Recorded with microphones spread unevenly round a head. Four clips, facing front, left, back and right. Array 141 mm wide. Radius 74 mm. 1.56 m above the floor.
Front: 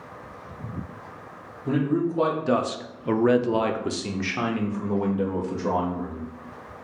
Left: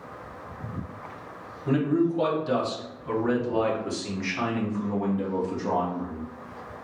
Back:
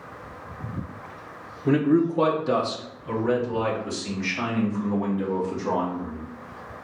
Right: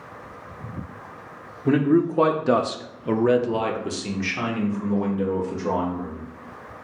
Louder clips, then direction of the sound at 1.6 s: Right 4 dB, back 4 dB; 120° right.